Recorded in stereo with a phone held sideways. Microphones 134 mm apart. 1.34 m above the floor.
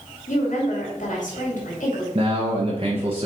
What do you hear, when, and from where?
0.3 s a woman speaking: 70° left (ahead or behind), 2.5 m
2.1 s a man speaking: 45° right (ahead or behind), 0.9 m